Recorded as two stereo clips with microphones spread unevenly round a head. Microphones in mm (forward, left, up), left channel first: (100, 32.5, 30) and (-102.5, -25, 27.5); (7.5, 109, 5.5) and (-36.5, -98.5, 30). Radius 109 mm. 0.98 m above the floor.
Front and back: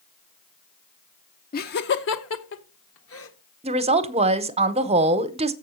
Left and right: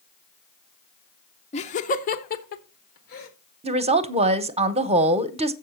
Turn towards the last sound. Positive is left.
turn(degrees=-145)